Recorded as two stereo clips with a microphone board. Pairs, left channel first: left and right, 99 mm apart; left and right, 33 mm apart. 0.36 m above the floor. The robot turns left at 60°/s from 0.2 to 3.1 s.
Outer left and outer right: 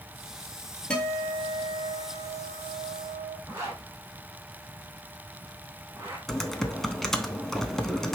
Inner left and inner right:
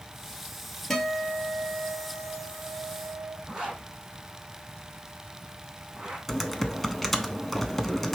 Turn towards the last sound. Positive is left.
turn(degrees=5)  # may be behind; listen again after turning